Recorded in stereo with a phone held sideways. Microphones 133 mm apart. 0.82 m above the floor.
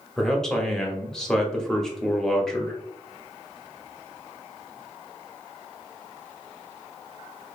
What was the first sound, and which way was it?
A man speaking, 5° left (ahead or behind).